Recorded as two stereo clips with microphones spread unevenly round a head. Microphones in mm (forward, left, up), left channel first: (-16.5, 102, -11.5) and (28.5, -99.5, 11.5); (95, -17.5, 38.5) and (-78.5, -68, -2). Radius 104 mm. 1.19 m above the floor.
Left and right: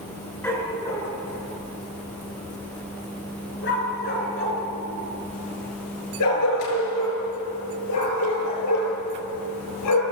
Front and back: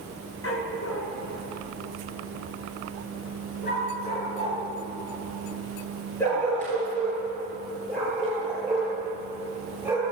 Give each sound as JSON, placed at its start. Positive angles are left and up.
{"t": 0.4, "sound": "a dog barking", "azimuth_deg": 20, "distance_m": 5.0}